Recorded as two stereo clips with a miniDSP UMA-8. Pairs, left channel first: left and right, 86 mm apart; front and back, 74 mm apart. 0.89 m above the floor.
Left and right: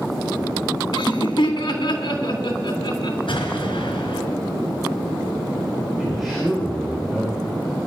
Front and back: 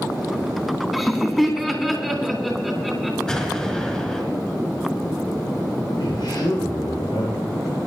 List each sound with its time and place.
0.9 s laughter: 90° left, 3.5 m
3.3 s an explosion: 75° left, 4.5 m
6.0 s a man speaking: straight ahead, 4 m